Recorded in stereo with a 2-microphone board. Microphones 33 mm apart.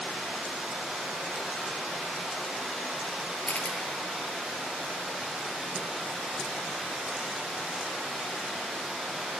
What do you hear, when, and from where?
0.0 s running water: 15° right (ahead or behind), 4 m
3.5 s a camera shutter: 55° left (ahead or behind), 0.9 m